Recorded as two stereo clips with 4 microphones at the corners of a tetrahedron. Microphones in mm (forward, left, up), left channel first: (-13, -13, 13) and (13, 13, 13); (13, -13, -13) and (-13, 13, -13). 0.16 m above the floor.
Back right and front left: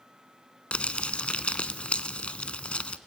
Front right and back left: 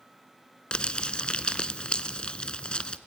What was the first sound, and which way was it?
Crumpling, 95° right.